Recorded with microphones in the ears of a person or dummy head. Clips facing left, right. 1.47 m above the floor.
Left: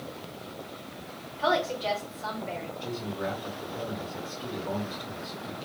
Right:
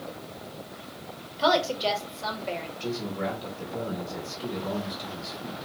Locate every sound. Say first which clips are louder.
1.4 s a woman speaking: right 3 dB; 55° right (ahead or behind), 1.3 m
2.8 s a man speaking: right 3 dB; 80° right, 1.5 m